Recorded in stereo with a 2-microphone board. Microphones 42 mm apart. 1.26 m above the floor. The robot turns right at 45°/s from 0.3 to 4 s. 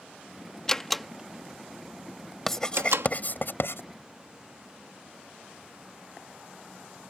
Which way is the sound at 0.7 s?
15° left (ahead or behind).